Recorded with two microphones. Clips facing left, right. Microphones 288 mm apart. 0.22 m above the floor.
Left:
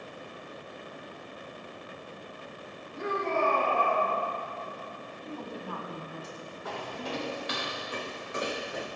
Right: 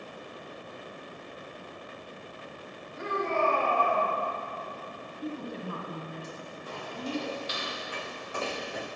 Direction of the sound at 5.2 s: 30° right (ahead or behind).